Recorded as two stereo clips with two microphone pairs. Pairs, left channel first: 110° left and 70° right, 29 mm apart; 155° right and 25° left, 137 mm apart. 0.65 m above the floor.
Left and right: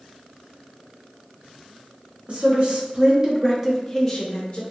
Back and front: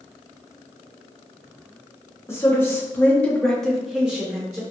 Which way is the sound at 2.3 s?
90° right.